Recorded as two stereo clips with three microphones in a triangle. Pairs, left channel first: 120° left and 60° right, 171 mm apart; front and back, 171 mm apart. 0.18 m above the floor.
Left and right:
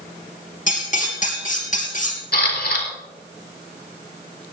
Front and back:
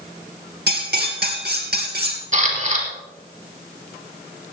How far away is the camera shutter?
About 4 m.